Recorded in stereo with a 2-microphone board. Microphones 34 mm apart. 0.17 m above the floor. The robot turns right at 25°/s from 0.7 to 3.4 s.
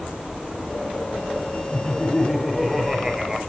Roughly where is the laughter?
Behind left.